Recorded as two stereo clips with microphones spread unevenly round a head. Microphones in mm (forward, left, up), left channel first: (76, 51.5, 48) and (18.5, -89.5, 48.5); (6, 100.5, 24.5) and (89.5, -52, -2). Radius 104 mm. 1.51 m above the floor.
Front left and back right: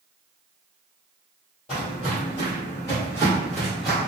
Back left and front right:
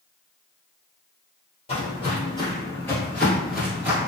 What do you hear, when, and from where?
1.7 s footsteps: 110° left, 1.9 m; by 4.1 s 45° right, 1.4 m